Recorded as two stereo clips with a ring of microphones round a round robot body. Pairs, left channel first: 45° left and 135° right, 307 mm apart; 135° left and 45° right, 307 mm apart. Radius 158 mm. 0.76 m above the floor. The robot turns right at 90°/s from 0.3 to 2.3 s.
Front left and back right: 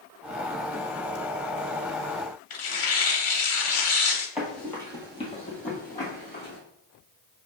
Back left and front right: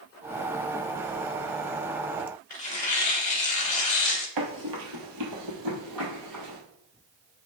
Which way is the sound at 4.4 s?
45° right.